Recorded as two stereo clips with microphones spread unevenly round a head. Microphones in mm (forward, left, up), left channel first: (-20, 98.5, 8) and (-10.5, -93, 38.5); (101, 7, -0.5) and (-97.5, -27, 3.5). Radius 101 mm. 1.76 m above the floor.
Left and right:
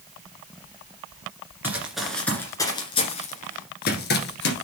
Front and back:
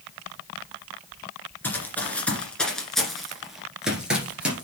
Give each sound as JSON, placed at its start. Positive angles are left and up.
{"t": 1.6, "sound": "running footsteps", "azimuth_deg": -60, "distance_m": 1.8}